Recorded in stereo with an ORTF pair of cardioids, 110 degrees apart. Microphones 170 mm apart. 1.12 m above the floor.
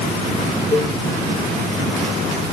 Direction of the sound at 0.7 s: 20° left.